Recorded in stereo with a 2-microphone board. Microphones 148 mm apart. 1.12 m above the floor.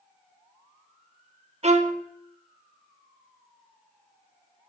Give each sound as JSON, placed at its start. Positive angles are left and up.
{"t": 1.6, "sound": "a violin", "side_deg": -50, "distance_m": 0.7}